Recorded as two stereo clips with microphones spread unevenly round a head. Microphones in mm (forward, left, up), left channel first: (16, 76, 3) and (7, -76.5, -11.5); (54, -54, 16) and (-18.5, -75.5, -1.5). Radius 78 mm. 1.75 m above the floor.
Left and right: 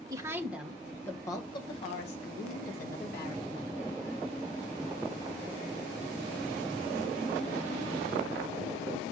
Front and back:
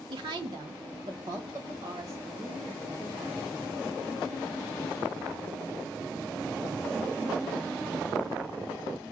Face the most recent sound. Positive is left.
turn(degrees=105)